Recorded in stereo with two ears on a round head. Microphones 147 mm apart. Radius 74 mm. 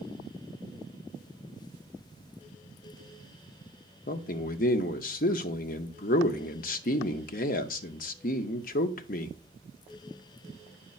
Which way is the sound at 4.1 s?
55° left (ahead or behind).